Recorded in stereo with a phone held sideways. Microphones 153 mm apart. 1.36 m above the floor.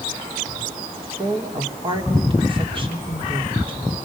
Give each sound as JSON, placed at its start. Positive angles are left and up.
{"t": 1.2, "sound": "a woman speaking", "side_deg": -35, "distance_m": 3.0}